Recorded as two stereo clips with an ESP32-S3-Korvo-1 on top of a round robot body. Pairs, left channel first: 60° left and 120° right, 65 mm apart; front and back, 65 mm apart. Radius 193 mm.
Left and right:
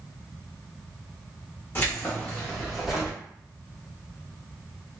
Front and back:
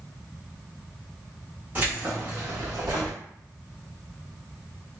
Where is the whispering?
I don't hear whispering.